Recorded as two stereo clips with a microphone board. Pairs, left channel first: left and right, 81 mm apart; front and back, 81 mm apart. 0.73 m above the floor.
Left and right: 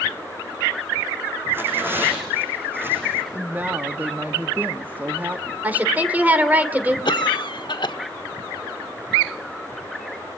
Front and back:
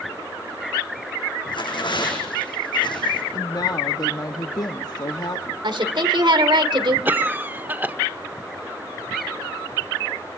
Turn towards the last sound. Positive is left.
turn(degrees=110)